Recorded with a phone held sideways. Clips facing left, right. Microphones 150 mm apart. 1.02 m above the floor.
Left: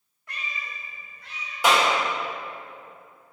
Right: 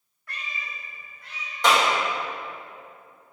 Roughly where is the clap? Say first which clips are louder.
Even; centre.